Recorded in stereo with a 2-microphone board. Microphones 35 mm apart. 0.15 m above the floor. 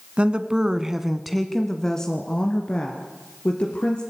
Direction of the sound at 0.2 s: 30° right (ahead or behind).